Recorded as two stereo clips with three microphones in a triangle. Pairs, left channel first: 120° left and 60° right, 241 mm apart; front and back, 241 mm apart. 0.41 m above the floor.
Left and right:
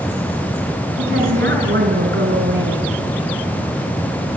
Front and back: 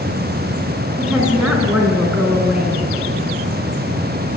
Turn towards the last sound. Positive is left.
turn(degrees=-95)